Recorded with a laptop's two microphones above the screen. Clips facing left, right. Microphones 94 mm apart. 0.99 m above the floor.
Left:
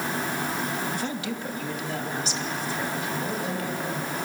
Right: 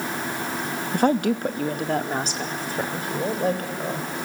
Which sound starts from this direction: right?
A woman speaking, at 0.9 s.